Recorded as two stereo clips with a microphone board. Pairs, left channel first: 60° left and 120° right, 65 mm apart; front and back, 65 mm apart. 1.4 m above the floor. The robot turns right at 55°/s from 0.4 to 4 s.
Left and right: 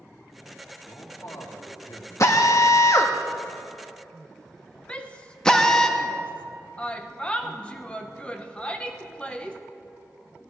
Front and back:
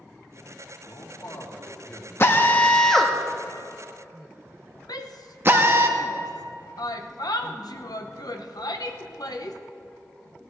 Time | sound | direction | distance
0.8 | a man speaking | 5° right | 2.5 m
2.2 | a drill | 40° left | 1.0 m
4.9 | a shout | 10° right | 1.0 m